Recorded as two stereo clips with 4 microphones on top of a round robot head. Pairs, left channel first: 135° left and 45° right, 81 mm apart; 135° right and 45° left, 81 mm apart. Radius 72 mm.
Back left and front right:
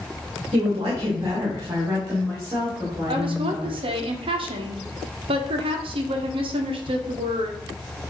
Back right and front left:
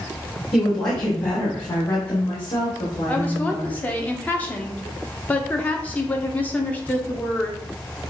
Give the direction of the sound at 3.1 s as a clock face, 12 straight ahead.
2 o'clock.